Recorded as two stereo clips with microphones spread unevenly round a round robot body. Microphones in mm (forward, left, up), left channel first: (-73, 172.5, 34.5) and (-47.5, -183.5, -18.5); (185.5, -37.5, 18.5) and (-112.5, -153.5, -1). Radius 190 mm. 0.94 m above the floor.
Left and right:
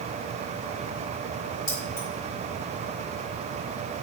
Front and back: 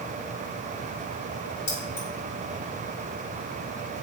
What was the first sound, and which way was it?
Keys jangling, 50° left.